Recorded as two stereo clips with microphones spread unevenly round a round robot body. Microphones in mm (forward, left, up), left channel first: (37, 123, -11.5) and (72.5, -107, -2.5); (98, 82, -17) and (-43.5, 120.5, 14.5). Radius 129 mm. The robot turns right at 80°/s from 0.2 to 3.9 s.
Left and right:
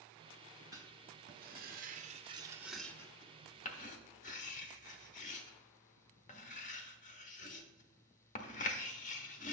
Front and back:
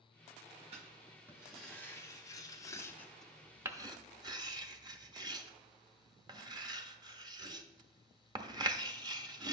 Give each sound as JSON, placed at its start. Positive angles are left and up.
{"t": 0.7, "sound": "writing", "azimuth_deg": -150, "distance_m": 0.8}